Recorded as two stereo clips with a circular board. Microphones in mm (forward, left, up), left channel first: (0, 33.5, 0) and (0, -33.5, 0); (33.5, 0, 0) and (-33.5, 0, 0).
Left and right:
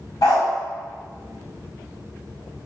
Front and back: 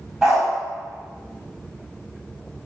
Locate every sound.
0.2 s a dog barking: 105° left, 0.8 m